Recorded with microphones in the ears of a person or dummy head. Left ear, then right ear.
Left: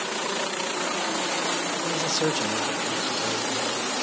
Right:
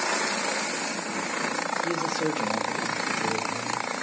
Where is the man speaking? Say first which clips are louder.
Left 2 dB; 5° left (ahead or behind), 0.9 m; by 3.9 s 85° left, 2.0 m.